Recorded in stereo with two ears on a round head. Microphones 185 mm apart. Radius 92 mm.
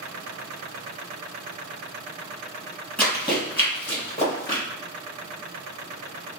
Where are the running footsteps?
5° left (ahead or behind), 2.0 m; by 4.6 s 15° left (ahead or behind), 1.6 m.